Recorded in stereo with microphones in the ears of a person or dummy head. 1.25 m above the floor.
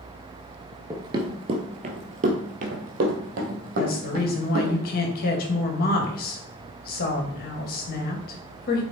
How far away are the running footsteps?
About 1.2 m.